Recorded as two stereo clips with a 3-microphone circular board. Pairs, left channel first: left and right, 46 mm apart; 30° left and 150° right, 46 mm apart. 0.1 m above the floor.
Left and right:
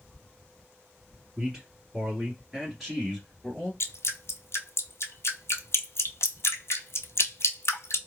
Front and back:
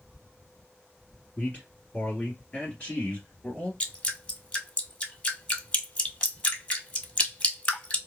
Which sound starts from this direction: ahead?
A man speaking, at 1.4 s.